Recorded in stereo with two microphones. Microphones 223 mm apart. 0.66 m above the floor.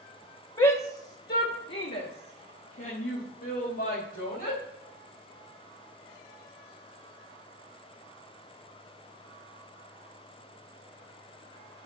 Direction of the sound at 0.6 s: 25° left (ahead or behind).